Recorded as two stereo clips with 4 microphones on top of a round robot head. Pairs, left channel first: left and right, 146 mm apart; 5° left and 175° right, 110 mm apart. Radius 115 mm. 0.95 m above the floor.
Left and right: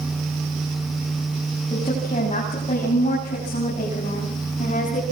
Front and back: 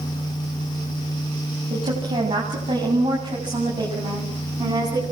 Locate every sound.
1.7 s a woman speaking: 145° left, 8 m; by 5.0 s 140° left, 9.5 m